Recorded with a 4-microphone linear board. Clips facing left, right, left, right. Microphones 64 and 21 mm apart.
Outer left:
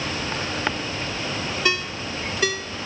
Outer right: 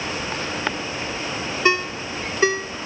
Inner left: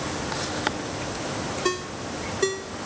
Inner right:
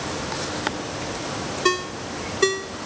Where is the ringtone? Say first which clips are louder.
Outer right 7 dB, inner right 8 dB; 30° right (ahead or behind).